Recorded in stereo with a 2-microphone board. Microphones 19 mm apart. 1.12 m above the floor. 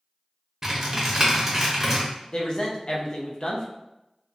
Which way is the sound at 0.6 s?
20° right (ahead or behind).